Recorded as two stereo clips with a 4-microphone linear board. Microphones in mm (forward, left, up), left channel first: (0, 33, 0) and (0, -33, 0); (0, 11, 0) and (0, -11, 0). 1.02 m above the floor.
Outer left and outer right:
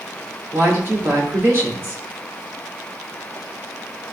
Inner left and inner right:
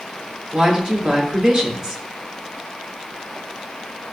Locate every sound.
0.5 s a woman speaking: 35° right (ahead or behind), 3 m